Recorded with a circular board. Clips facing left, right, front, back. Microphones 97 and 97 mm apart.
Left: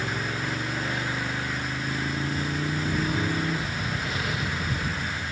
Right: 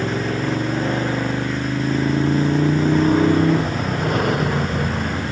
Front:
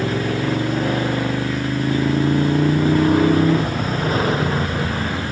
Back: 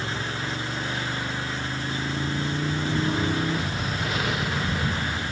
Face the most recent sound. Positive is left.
turn(degrees=-55)